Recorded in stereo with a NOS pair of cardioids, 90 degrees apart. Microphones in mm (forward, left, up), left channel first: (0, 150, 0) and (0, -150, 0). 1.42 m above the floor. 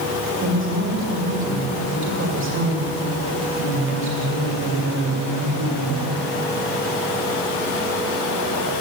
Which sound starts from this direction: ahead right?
A woman speaking, at 0.4 s.